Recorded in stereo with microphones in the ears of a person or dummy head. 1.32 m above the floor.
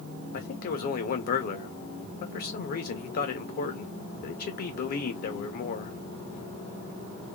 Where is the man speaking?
50° left (ahead or behind), 0.7 m.